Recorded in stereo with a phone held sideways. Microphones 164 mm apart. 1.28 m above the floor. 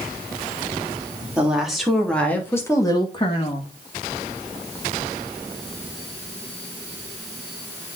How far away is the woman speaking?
About 3.5 m.